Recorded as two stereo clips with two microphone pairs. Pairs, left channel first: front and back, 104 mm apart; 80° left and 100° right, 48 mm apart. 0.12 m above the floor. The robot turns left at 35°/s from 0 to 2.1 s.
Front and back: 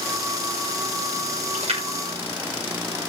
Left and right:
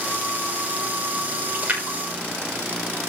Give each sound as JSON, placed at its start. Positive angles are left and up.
{"t": 1.5, "sound": "a splash", "azimuth_deg": -155, "distance_m": 6.0}